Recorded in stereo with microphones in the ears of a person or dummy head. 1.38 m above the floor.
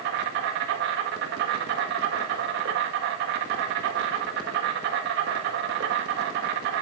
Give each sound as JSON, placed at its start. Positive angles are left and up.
{"t": 0.0, "sound": "an insect", "side_deg": -60, "distance_m": 1.8}